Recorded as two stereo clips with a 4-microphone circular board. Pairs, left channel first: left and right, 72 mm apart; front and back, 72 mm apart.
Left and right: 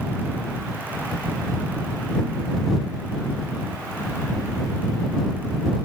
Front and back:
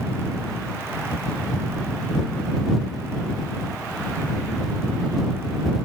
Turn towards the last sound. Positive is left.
No sound to turn to.